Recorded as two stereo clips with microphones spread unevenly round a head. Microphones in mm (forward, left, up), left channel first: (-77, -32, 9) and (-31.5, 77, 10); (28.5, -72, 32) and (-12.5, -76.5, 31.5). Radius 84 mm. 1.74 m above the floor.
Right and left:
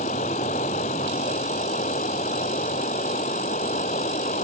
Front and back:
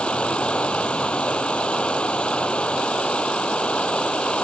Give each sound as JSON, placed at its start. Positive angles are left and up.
{"t": 0.0, "sound": "running water", "azimuth_deg": -60}